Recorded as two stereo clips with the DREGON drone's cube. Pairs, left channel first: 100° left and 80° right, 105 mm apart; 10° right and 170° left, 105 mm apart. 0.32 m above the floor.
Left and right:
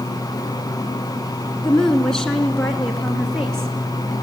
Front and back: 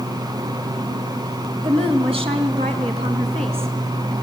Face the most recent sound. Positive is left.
turn(degrees=-170)